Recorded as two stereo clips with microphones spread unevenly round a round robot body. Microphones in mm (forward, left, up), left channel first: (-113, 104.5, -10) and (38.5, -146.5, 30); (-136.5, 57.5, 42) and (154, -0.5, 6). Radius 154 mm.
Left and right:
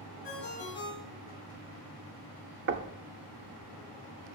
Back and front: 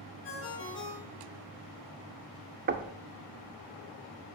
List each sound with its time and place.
0.2 s a ringtone: 120° left, 3 m
2.7 s knocking: 20° right, 0.6 m